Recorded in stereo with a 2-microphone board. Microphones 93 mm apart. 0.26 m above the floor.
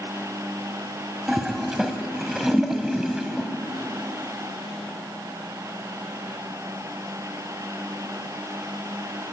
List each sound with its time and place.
1.3 s a toilet flushing: 5° right (ahead or behind), 1.6 m